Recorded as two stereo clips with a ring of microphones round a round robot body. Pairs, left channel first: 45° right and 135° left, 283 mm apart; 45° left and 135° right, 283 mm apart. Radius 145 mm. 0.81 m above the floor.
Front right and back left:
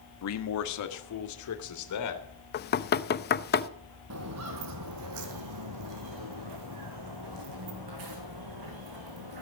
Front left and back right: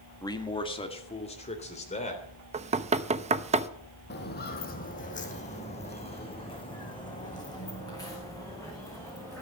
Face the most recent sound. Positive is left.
turn(degrees=125)